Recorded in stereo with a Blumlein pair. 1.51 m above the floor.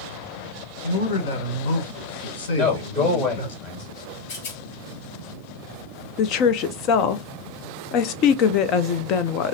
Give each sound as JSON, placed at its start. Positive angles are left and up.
{"t": 0.8, "sound": "a man speaking", "azimuth_deg": 60, "distance_m": 1.7}
{"t": 2.6, "sound": "a man speaking", "azimuth_deg": 35, "distance_m": 3.0}
{"t": 4.3, "sound": "a rattle", "azimuth_deg": 50, "distance_m": 2.0}
{"t": 6.2, "sound": "a woman speaking", "azimuth_deg": 40, "distance_m": 0.6}